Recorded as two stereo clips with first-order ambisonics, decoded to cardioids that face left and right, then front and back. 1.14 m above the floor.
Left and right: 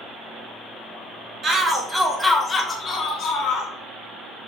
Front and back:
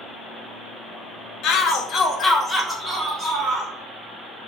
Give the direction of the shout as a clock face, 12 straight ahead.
1 o'clock.